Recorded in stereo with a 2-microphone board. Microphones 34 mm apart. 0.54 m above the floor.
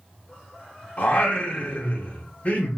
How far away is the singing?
About 0.9 m.